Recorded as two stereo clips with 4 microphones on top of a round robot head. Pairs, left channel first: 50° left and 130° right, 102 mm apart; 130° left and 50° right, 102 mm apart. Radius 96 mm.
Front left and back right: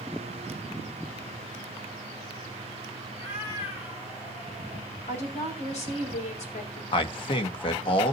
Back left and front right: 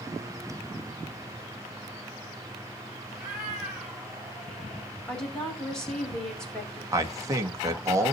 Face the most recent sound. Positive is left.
turn(degrees=10)